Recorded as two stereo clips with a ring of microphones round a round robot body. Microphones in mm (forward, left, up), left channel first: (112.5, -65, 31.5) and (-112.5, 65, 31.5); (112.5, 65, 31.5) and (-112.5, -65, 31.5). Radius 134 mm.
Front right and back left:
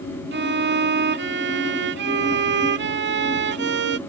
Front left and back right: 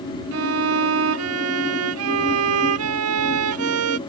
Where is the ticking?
No ticking in this recording.